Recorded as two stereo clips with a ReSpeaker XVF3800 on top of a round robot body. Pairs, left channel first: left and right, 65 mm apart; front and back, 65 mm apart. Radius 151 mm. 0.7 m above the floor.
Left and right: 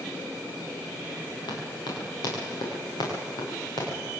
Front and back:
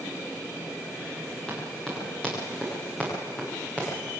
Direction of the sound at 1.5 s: 80° left.